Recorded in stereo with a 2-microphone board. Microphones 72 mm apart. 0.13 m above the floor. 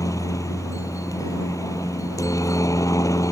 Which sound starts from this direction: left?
A helicopter, at 0.0 s.